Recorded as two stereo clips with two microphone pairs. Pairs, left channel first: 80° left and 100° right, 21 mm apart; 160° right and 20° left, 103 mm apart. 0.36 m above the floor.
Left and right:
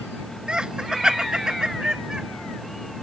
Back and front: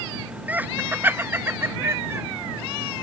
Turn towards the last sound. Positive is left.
turn(degrees=-45)